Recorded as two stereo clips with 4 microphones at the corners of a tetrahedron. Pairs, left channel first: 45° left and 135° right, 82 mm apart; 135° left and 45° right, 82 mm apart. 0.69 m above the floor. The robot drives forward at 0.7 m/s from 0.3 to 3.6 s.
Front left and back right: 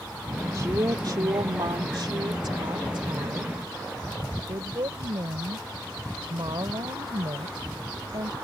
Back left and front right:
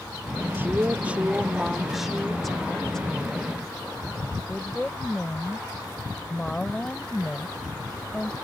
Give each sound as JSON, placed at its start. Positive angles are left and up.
{"t": 0.5, "sound": "a woman speaking", "azimuth_deg": -100}